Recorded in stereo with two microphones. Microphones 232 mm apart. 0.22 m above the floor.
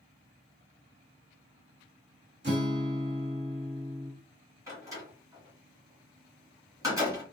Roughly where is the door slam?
Centre.